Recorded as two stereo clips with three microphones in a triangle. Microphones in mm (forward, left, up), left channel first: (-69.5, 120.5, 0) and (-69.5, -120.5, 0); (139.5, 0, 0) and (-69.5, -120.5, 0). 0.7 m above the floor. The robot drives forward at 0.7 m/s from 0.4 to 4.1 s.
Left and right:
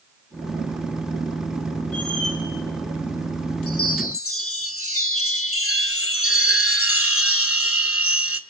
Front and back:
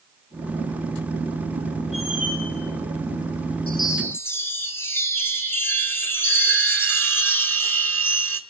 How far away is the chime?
About 1.2 m.